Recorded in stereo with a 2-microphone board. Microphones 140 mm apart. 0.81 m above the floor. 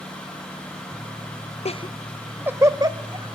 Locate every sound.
1.6 s laughter: 50° left (ahead or behind), 0.5 m; by 3.3 s 30° right (ahead or behind), 1.4 m